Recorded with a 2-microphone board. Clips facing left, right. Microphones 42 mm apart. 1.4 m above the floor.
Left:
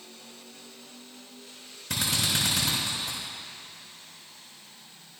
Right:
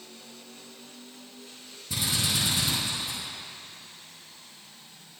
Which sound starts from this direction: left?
A drill, at 1.9 s.